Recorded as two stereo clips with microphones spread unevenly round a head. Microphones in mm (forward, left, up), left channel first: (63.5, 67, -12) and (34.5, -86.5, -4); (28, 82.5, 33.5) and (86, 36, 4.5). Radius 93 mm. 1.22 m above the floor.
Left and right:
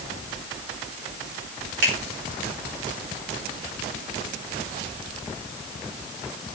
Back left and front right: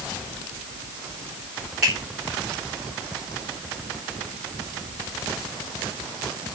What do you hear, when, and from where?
1.8 s a finger snap: 120° right, 4.5 m